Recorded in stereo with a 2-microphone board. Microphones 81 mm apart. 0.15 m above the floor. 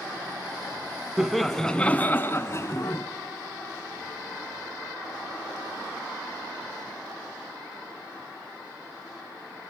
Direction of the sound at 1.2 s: 5° right (ahead or behind).